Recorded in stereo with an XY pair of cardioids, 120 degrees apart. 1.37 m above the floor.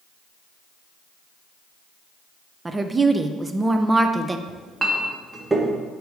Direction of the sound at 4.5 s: 15° right.